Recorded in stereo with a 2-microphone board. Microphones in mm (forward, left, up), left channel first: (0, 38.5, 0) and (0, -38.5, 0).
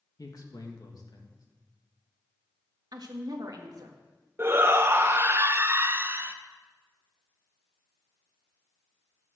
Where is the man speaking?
50° left (ahead or behind), 2 m.